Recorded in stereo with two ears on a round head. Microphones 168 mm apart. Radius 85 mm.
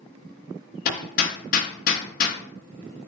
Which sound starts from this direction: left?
Hammering, at 0.8 s.